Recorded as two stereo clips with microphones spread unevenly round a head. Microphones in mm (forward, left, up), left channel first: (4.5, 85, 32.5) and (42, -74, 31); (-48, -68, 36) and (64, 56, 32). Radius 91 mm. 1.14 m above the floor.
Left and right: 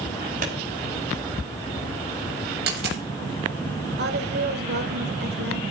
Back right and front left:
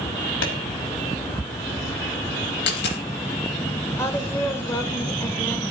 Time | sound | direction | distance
0.4 | a clap | 125° right | 6 m
2.7 | a dropped coin | 115° right | 7.5 m
4.0 | a woman speaking | 55° right | 4 m